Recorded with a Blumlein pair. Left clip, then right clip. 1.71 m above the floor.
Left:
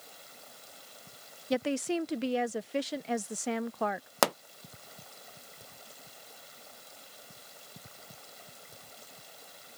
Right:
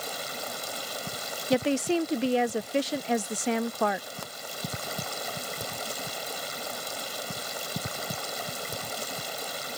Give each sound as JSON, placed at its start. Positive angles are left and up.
{"t": 0.0, "sound": "running water", "azimuth_deg": -40}
{"t": 1.5, "sound": "a woman speaking", "azimuth_deg": -15}
{"t": 4.2, "sound": "a pop", "azimuth_deg": 40}